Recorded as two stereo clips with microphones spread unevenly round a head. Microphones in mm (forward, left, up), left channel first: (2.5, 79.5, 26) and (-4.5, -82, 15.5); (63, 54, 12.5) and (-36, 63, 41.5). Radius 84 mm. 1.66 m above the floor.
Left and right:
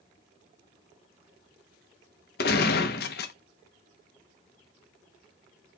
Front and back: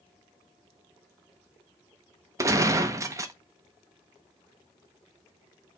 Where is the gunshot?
120° left, 0.6 m.